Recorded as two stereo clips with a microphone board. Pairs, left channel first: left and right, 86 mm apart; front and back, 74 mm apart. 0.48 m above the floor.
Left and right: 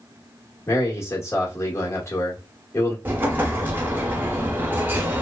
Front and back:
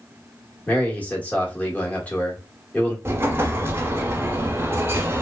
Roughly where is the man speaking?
Ahead left.